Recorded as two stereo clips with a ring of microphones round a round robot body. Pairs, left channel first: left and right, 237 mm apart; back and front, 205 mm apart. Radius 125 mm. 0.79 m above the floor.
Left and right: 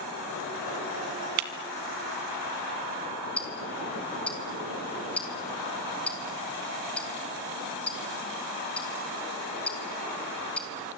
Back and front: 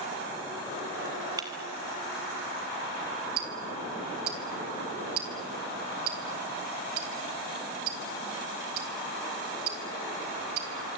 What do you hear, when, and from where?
1.4 s breaking glass: 75° right, 1.6 m
3.4 s ticking: 5° left, 3 m